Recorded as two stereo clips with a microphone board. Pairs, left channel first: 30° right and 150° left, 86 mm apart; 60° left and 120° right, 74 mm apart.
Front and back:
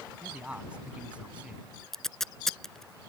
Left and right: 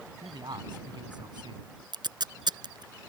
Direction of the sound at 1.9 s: 115° right.